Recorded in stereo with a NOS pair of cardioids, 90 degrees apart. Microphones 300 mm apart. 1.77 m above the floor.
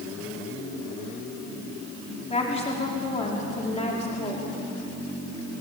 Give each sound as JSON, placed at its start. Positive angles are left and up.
{"t": 2.3, "sound": "a woman speaking", "azimuth_deg": 20, "distance_m": 4.5}